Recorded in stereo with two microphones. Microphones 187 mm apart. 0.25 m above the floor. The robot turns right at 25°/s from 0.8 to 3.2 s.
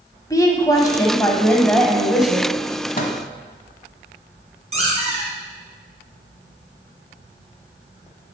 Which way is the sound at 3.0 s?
45° left (ahead or behind).